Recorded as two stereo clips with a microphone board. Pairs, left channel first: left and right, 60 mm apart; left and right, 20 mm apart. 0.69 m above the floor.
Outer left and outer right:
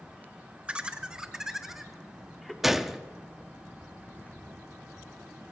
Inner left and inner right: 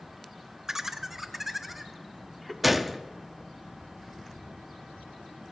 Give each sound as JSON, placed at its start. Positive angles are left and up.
{"t": 0.7, "sound": "laughter", "side_deg": -20, "distance_m": 1.4}
{"t": 2.6, "sound": "a gunshot", "side_deg": -5, "distance_m": 0.7}